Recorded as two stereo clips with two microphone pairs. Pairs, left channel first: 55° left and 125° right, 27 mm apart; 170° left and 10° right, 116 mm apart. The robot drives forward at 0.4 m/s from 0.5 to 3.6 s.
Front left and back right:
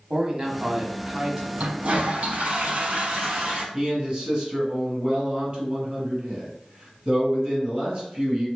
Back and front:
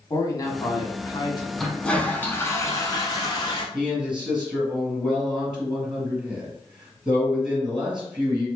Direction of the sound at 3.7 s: 95° right.